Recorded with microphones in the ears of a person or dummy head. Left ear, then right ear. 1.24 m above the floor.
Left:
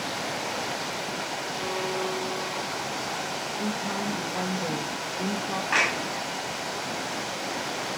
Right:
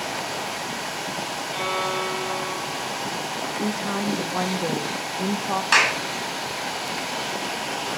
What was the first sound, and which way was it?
A violin, 80° right.